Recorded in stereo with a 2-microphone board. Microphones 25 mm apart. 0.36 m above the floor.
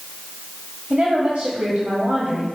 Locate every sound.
0.9 s a woman speaking: 60° right (ahead or behind), 1.6 m